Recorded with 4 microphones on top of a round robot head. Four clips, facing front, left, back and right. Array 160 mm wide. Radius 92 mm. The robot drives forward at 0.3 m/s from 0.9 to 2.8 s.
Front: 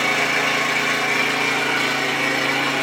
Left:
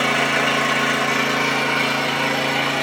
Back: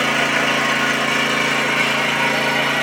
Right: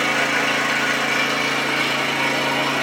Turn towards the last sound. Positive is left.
turn(degrees=155)